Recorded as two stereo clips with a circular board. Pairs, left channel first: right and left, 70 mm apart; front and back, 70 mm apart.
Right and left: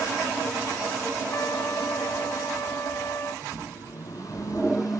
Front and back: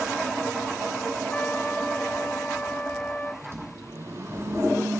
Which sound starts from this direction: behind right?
A microwave, at 3.4 s.